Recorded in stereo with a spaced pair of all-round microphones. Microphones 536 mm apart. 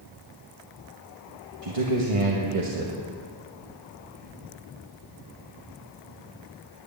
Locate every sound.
1.6 s a man speaking: 70° right (ahead or behind), 1.5 m